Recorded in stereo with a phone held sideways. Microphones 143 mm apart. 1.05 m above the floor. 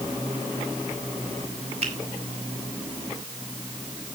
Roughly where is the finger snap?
Right.